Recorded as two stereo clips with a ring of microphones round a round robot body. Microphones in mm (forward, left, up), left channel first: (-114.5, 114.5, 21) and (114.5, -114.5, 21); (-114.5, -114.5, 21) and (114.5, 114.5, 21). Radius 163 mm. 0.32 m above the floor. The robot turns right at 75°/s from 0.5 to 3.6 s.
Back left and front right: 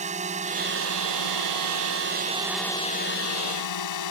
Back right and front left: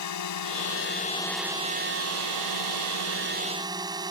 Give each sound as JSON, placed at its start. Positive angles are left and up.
{"t": 0.0, "sound": "a drone", "azimuth_deg": -110}